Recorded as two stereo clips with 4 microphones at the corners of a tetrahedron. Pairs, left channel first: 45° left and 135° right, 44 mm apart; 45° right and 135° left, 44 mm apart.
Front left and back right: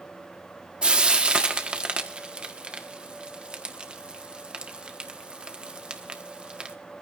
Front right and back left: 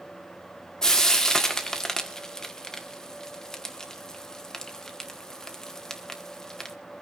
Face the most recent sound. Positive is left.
turn(degrees=-105)